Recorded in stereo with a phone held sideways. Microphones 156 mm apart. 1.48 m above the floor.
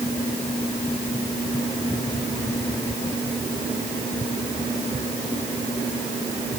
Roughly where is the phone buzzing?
No phone buzzing in this recording.